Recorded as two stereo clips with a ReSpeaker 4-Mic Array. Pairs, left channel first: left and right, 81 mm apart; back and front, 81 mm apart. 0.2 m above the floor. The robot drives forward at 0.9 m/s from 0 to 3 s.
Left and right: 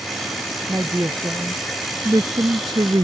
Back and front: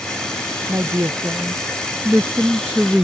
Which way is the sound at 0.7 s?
40° right.